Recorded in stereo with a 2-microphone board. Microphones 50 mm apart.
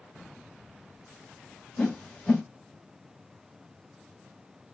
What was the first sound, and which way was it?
A whoosh, 20° left (ahead or behind).